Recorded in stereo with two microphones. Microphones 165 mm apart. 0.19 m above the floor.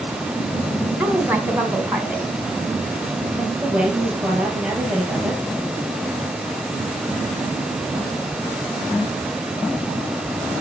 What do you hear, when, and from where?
1.0 s a woman speaking: 10° right (ahead or behind), 1.8 m
3.4 s a woman speaking: 10° right (ahead or behind), 5 m